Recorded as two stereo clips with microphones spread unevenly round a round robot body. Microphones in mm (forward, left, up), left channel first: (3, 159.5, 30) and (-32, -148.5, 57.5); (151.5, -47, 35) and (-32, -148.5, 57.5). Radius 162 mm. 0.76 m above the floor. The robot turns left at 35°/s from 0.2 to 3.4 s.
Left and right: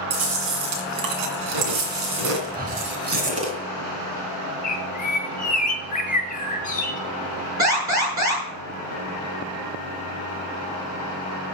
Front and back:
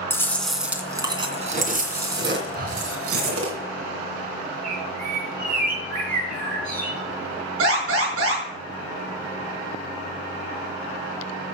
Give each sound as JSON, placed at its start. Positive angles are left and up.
{"t": 0.1, "sound": "chewing", "azimuth_deg": -50, "distance_m": 2.5}
{"t": 2.5, "sound": "breathing", "azimuth_deg": -140, "distance_m": 0.7}
{"t": 4.6, "sound": "a bird", "azimuth_deg": 150, "distance_m": 1.6}
{"t": 7.6, "sound": "an alarm", "azimuth_deg": -175, "distance_m": 7.5}